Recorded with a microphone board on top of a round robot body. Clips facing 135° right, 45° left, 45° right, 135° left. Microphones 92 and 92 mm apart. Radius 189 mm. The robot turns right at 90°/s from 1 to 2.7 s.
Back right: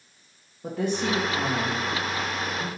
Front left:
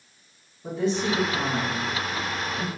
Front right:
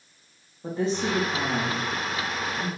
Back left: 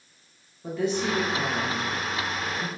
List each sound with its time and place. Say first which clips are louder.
0.6 s a woman speaking: front left 1 dB, even; 105° right, 2 m; by 2.7 s 50° left, 2 m